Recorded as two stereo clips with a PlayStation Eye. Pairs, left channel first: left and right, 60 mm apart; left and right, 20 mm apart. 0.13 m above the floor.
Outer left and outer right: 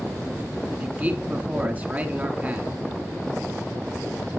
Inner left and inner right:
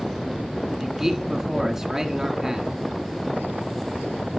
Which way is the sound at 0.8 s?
30° right (ahead or behind).